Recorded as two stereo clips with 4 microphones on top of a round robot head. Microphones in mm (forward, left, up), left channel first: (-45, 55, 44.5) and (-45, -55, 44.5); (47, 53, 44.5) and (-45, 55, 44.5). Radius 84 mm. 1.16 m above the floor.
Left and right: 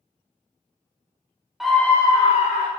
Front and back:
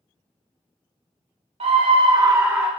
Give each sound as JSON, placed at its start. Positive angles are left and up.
{"t": 1.6, "sound": "a scream", "azimuth_deg": 180, "distance_m": 0.7}